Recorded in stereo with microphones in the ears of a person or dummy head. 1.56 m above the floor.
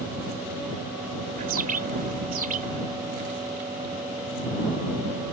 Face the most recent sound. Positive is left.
turn(degrees=-40)  # may be behind; listen again after turning